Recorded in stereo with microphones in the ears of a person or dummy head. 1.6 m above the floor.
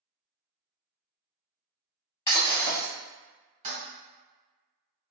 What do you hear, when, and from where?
2.3 s breaking glass: 20° left (ahead or behind), 1.9 m
3.6 s a toilet flushing: 35° right (ahead or behind), 1.8 m